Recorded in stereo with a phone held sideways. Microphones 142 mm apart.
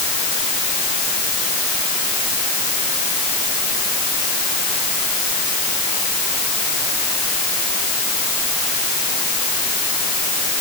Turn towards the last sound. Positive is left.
No sound to turn to.